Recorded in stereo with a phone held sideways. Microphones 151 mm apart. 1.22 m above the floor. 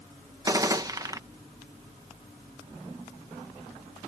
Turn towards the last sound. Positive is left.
turn(degrees=-25)  # may be behind; listen again after turning